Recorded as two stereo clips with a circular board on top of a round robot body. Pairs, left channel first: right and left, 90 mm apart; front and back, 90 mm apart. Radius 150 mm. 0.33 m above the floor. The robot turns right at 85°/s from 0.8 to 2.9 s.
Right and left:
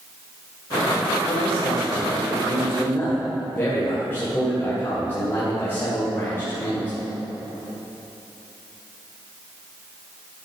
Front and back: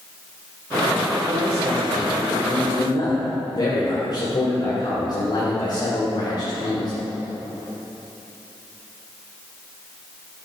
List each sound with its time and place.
1.3 s a man speaking: 165° right, 2.5 m; by 6.9 s 25° right, 2.5 m